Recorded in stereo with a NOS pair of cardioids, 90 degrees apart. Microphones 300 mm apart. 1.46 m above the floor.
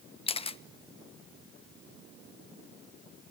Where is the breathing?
No breathing in this recording.